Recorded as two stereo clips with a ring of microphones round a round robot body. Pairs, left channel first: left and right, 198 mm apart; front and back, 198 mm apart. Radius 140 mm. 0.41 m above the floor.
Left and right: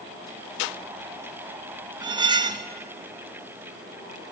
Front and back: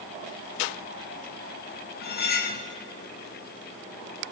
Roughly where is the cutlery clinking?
Ahead right.